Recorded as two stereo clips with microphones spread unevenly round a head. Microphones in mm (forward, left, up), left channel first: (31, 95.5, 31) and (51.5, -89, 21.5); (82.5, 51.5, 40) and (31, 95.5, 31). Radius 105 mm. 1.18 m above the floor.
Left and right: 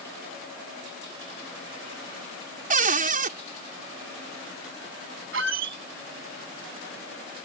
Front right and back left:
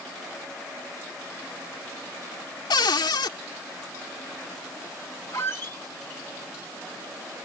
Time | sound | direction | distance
2.7 | a cupboard door | 35° right | ?
5.3 | a squeak | 100° right | ?